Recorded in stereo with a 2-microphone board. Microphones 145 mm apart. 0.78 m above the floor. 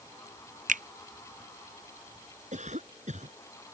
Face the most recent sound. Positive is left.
turn(degrees=-55)  # may be behind; listen again after turning